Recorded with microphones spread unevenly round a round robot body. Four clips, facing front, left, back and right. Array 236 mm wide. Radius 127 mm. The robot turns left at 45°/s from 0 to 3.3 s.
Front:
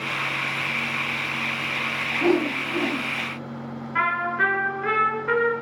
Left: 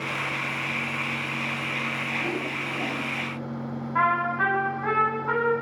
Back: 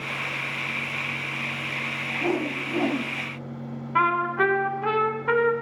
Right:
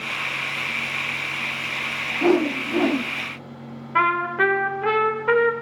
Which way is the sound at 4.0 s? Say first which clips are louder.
Right 3 dB, back 2 dB; 110° right.